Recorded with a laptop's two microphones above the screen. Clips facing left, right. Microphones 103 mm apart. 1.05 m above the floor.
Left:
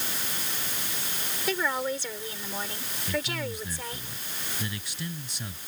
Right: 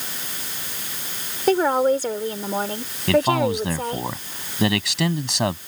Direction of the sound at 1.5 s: 50° right (ahead or behind).